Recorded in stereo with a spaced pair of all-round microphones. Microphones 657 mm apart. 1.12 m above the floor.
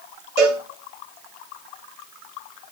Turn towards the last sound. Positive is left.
turn(degrees=-50)  # may be behind; listen again after turning